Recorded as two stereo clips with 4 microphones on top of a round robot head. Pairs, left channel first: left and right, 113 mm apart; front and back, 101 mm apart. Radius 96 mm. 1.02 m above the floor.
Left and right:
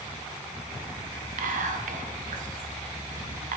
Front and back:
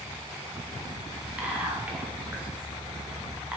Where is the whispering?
100° right, 0.5 m.